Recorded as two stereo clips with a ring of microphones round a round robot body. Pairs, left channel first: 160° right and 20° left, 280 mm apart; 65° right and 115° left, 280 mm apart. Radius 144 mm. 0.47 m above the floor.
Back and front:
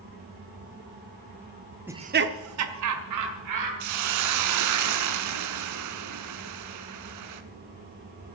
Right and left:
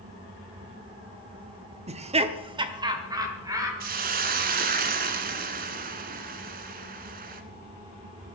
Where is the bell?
I don't hear a bell.